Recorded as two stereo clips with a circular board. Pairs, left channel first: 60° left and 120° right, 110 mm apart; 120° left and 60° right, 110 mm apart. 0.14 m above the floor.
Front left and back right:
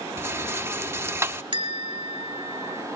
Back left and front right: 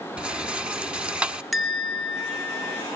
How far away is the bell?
About 2.0 m.